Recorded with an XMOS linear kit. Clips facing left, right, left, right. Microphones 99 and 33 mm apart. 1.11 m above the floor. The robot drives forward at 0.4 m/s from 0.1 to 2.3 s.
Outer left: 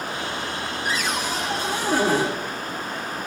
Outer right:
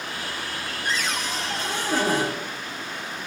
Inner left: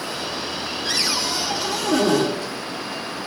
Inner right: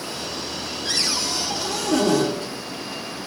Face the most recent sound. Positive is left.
turn(degrees=10)  # may be behind; listen again after turning